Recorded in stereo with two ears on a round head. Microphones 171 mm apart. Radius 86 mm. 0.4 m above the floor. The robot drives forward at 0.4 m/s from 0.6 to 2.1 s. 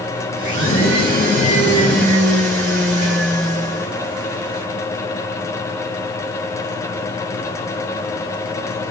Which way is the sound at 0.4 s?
50° right (ahead or behind).